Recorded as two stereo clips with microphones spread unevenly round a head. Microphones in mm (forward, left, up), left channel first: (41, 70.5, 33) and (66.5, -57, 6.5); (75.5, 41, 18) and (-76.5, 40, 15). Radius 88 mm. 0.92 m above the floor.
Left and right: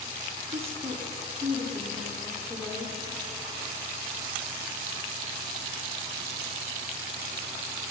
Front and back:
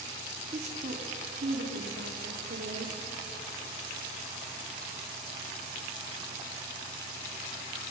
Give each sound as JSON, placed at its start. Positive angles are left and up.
{"t": 0.5, "sound": "a woman speaking", "azimuth_deg": -125, "distance_m": 2.0}